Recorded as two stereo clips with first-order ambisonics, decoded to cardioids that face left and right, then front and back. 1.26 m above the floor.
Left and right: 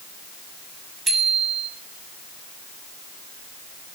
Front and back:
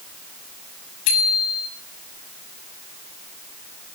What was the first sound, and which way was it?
A bicycle bell, 15° right.